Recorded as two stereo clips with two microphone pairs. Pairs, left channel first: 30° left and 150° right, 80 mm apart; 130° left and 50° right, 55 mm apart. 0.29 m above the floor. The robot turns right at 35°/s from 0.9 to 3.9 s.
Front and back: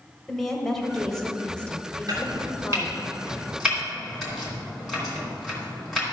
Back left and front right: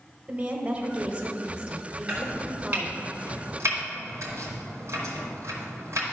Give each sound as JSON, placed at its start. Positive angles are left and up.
{"t": 0.3, "sound": "a woman speaking", "azimuth_deg": -50, "distance_m": 1.1}
{"t": 2.1, "sound": "chopping", "azimuth_deg": -125, "distance_m": 3.0}